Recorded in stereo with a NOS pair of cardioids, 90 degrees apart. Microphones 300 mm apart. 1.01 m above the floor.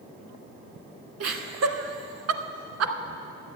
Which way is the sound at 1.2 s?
55° right.